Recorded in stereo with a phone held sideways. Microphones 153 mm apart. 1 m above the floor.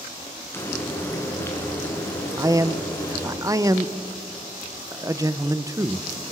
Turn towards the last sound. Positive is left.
turn(degrees=-20)  # may be behind; listen again after turning